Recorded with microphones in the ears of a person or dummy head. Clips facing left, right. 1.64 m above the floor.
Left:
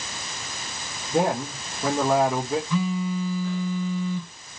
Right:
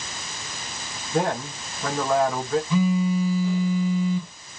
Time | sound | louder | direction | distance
1.1 | a man speaking | left 1 dB | 15° left (ahead or behind) | 2.5 m
2.7 | a phone buzzing | right 4 dB | 15° right (ahead or behind) | 3.5 m